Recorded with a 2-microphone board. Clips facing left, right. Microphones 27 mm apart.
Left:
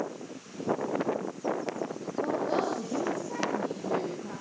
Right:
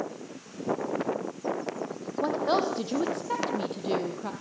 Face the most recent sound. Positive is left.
turn(degrees=-75)  # may be behind; listen again after turning